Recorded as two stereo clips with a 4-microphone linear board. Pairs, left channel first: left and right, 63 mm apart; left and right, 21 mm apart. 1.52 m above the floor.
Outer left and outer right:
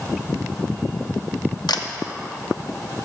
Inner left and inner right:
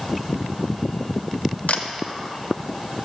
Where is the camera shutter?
85° left, 0.6 m.